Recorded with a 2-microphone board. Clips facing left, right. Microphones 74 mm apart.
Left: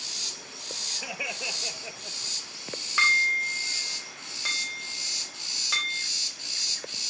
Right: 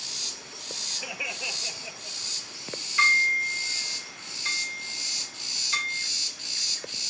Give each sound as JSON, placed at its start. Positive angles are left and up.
{"t": 1.0, "sound": "laughter", "side_deg": 15, "distance_m": 1.5}
{"t": 3.0, "sound": "dishes clattering", "side_deg": 75, "distance_m": 4.0}